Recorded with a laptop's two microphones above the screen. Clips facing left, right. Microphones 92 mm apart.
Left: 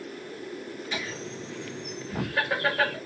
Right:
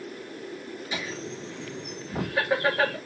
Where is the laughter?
5° right (ahead or behind), 1.3 m.